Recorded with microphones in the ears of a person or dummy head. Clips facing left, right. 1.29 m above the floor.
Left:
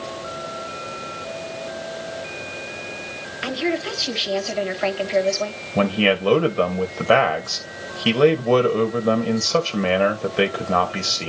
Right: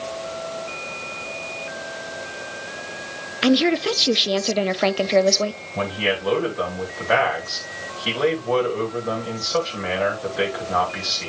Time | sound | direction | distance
3.4 | a woman speaking | 55° right (ahead or behind) | 0.7 m
5.8 | a man speaking | 40° left (ahead or behind) | 1.2 m